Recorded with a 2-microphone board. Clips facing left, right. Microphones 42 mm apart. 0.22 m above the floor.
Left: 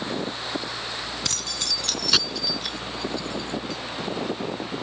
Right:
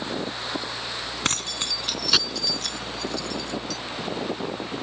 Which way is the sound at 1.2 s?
45° right (ahead or behind).